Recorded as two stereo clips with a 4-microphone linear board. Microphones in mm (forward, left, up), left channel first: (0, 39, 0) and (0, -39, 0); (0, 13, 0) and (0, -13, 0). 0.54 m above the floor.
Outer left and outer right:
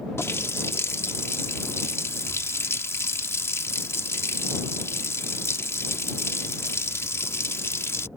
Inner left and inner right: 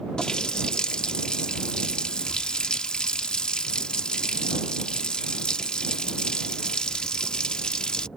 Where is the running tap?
35° left (ahead or behind).